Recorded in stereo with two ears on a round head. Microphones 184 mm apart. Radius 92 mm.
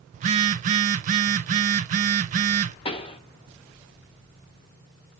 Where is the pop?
25° left (ahead or behind), 0.8 m.